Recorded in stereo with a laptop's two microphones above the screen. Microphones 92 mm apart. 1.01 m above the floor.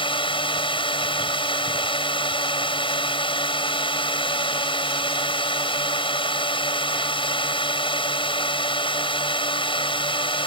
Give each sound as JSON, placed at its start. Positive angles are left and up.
{"t": 0.0, "sound": "a drone", "side_deg": 70}